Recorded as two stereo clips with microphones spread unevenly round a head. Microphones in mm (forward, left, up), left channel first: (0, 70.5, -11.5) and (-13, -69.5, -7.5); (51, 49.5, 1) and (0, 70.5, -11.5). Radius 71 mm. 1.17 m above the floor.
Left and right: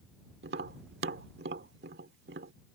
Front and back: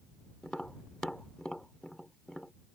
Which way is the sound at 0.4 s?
105° right.